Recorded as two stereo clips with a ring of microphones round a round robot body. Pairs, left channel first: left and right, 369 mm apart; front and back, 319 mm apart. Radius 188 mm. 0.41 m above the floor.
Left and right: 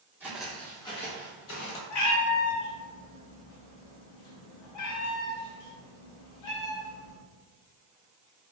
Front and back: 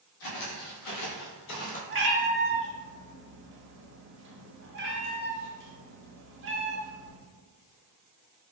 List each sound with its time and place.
0.2 s footsteps: 5° right, 1.0 m; by 1.8 s 65° left, 0.6 m
1.9 s a cat meowing: 125° left, 0.7 m